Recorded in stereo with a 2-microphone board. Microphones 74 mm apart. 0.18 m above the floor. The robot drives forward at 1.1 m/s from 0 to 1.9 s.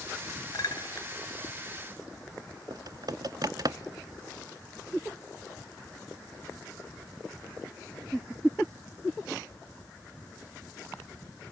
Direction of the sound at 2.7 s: 60° right (ahead or behind).